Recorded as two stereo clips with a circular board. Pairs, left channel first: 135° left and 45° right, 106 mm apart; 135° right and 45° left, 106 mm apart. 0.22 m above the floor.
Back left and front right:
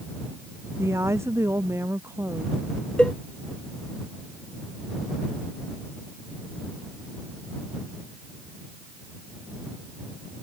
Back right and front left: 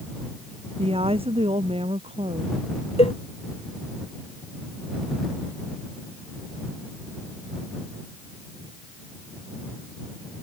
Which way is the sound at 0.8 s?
20° left.